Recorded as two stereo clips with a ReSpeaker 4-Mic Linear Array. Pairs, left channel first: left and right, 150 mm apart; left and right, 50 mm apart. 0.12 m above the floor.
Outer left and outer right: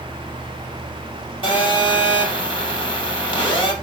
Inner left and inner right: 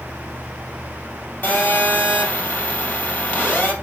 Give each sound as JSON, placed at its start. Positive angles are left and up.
{"t": 1.4, "sound": "a phone buzzing", "side_deg": 35, "distance_m": 3.0}